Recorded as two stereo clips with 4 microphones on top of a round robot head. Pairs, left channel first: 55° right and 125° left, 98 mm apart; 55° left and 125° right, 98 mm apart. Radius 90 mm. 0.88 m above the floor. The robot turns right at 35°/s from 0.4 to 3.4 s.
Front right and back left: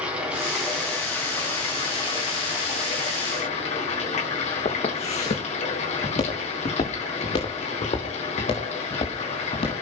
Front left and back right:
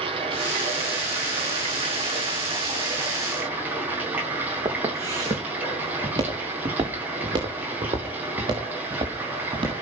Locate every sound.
0.0 s running water: 155° right, 4.5 m; by 9.8 s 50° right, 4.5 m
4.7 s footsteps: 65° right, 4 m; by 9.8 s 80° right, 6.5 m